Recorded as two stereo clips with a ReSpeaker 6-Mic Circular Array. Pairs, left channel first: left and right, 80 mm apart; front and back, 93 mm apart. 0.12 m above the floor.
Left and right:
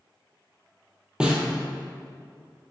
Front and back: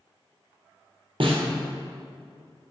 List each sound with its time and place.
1.2 s a snare drum: 170° right, 1.1 m